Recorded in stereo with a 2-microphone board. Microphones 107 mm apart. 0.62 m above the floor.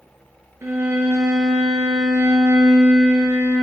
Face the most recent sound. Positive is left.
turn(degrees=-25)  # may be behind; listen again after turning